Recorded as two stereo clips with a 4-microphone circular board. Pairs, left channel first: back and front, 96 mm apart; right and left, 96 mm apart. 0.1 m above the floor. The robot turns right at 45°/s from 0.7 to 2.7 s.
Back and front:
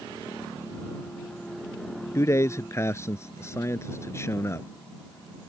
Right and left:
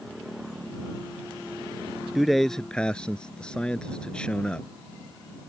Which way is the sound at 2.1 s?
175° left.